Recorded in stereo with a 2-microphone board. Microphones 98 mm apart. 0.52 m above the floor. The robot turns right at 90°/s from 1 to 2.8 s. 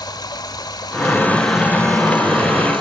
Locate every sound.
0.0 s running water: 135° left, 1.2 m; by 2.8 s 65° right, 1.2 m